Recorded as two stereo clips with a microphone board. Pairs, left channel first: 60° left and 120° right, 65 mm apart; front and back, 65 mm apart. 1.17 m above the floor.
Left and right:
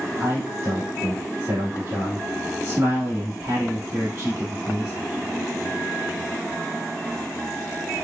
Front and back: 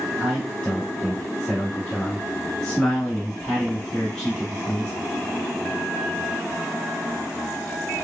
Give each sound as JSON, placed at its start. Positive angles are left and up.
{"t": 0.2, "sound": "a man speaking", "azimuth_deg": -75, "distance_m": 1.9}